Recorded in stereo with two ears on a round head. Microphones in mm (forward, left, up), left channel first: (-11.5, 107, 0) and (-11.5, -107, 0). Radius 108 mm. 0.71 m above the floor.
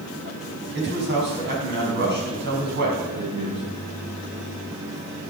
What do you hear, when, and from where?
0.8 s a man speaking: 50° right (ahead or behind), 5.5 m